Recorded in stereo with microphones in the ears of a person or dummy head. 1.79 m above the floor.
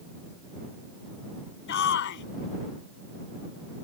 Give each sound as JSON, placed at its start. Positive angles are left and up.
{"t": 1.7, "sound": "a shout", "side_deg": 65}